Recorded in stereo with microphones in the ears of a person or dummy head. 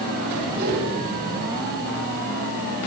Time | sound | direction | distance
0.6 | a whoosh | 60° right (ahead or behind) | 9 m